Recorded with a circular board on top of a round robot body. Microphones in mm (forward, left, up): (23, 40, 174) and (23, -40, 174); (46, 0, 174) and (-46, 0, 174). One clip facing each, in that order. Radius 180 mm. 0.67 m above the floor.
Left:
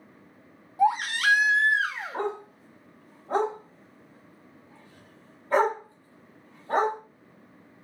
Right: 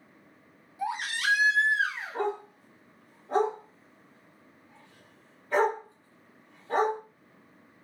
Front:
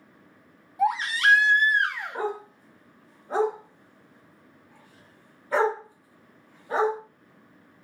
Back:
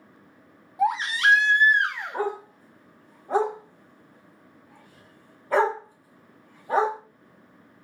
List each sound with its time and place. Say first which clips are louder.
0.8 s a baby crying: left 8 dB, back 1 dB; 115° left, 1.0 m
2.1 s a dog barking: right 3 dB, back 2 dB; 145° left, 1.0 m